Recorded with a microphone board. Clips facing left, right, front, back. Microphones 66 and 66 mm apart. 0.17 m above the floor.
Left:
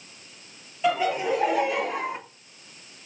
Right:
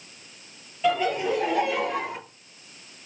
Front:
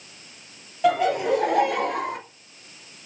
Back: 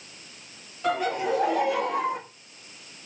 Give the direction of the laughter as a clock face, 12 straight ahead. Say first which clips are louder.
Even, front 5 dB; 12 o'clock.